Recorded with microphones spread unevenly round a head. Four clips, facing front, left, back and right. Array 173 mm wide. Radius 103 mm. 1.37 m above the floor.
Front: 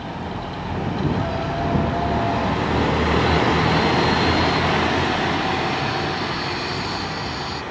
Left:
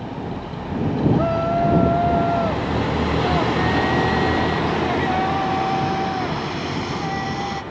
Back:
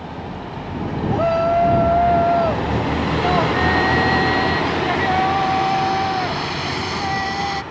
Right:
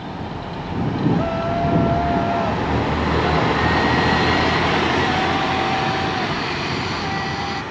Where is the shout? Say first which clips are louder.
Left 1 dB, back 7 dB; 175° left; by 7.6 s 165° right.